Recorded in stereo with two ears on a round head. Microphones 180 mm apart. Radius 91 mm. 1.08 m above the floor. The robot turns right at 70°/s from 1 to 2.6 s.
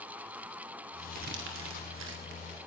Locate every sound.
1.1 s crumpling: 50° right (ahead or behind), 2.5 m; by 2.6 s 30° right (ahead or behind), 2.5 m